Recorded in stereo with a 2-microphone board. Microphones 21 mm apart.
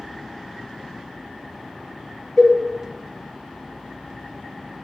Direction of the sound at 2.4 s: 5° left (ahead or behind).